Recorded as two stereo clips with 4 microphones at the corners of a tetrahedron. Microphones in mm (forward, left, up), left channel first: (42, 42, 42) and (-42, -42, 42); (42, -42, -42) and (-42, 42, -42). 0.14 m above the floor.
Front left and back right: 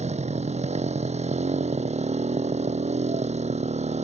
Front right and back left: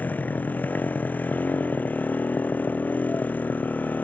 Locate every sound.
0.0 s a motorcycle: 120° right